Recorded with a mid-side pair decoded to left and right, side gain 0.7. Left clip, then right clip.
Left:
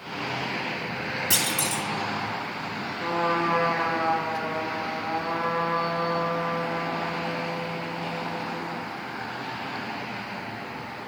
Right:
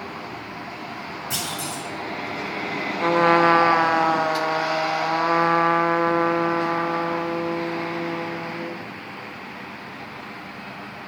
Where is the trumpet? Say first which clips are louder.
Right 8 dB; 55° right, 0.6 m.